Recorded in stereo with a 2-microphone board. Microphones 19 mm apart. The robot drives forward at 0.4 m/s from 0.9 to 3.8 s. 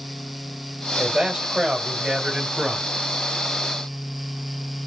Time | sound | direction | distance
1.0 | a man speaking | 45° right (ahead or behind) | 1.9 m